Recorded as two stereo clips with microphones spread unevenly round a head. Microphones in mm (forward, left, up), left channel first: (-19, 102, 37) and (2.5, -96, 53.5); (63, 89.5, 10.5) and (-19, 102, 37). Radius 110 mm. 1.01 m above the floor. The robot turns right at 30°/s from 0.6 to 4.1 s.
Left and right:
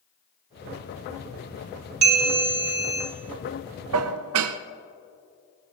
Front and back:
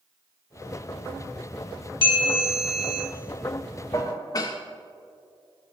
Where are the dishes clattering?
75° right, 0.5 m; by 4.6 s 70° right, 0.5 m.